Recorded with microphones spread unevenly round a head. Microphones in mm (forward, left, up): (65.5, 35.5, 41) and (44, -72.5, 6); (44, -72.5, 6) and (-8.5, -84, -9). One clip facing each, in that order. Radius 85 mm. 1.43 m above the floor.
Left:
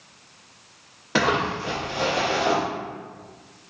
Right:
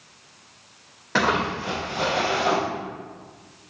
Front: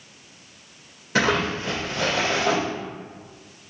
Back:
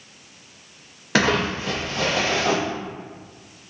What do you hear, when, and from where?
1.1 s crumpling: 155° left, 0.6 m